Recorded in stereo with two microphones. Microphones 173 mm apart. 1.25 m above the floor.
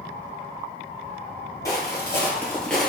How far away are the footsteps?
About 1.6 m.